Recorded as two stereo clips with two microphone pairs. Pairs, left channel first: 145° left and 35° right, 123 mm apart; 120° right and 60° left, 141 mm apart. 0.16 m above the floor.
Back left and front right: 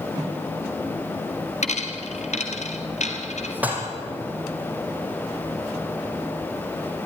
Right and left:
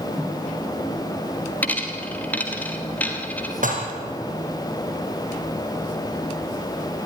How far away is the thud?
I don't hear a thud.